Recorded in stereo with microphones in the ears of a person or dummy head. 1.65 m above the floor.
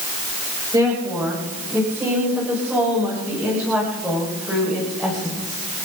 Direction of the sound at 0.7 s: 10° right (ahead or behind).